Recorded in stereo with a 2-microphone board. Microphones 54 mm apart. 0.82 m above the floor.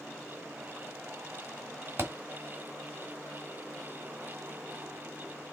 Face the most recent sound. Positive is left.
turn(degrees=-45)  # may be behind; listen again after turning